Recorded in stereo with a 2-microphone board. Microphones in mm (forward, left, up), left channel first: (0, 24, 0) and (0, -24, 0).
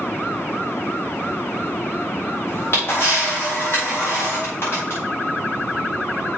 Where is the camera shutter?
50° left (ahead or behind), 5 m.